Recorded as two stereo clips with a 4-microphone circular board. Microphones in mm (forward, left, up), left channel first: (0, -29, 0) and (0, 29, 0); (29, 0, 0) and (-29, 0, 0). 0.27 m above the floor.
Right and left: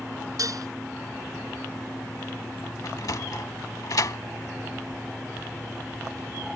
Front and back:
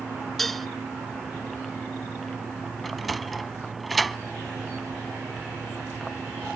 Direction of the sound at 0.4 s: 85° left.